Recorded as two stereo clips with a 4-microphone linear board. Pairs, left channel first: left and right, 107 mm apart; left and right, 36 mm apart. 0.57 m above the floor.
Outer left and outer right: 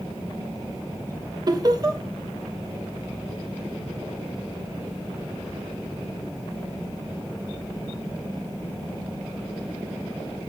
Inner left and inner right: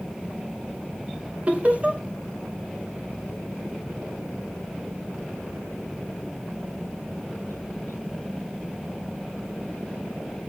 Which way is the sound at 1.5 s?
40° right (ahead or behind).